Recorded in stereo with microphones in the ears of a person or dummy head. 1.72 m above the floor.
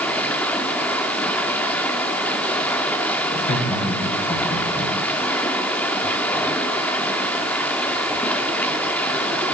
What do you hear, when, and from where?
0.0 s running water: 10° left (ahead or behind), 2.5 m
3.3 s laughter: 50° left (ahead or behind), 5.5 m